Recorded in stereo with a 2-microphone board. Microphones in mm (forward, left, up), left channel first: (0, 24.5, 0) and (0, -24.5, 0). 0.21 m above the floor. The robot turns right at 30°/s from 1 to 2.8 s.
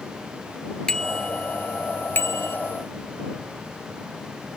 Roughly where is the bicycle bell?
Centre.